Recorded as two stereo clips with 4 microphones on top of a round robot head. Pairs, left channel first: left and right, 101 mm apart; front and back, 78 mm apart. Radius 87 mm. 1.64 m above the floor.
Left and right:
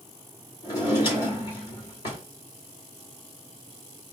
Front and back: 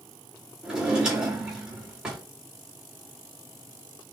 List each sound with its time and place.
0.6 s a drawer: 100° left, 2.5 m